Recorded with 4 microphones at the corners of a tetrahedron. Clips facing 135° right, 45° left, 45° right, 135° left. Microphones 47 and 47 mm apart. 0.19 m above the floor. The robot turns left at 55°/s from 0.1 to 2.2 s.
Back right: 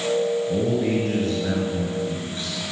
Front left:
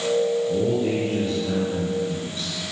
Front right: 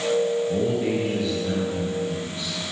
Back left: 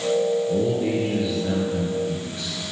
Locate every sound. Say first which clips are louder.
0.5 s a man speaking: even, back left 1 dB; 100° right, 3 m; by 2.5 s 165° left, 3 m